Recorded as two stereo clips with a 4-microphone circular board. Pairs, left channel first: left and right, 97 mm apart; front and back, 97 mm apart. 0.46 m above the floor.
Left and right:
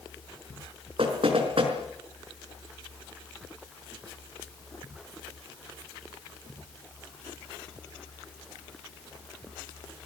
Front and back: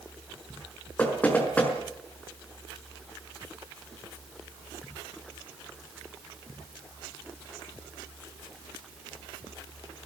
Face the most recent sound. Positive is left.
turn(degrees=-75)